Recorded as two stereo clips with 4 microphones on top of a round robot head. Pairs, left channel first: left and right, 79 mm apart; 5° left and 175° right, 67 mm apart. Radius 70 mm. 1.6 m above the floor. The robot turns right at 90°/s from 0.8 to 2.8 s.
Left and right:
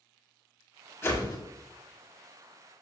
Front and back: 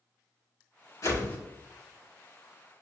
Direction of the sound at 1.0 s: 35° left.